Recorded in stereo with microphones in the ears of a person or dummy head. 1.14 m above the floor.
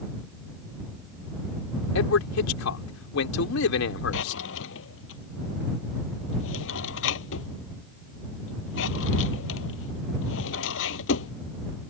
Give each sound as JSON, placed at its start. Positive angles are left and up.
{"t": 1.9, "sound": "a man speaking", "side_deg": 70}
{"t": 4.1, "sound": "a drawer", "side_deg": 80}